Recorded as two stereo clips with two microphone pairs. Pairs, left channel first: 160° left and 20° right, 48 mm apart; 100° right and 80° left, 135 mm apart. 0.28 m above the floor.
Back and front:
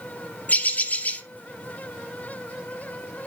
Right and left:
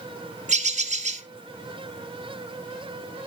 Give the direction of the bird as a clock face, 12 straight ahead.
8 o'clock.